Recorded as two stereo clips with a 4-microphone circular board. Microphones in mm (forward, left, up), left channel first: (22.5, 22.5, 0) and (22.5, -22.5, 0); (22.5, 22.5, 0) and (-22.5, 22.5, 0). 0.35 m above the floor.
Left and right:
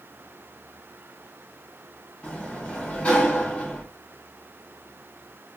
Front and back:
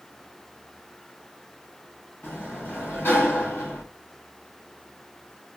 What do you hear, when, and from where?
2.2 s a sliding door: 30° left, 1.9 m